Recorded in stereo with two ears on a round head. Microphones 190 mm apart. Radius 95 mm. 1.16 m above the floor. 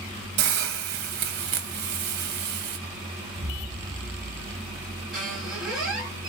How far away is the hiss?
About 0.7 m.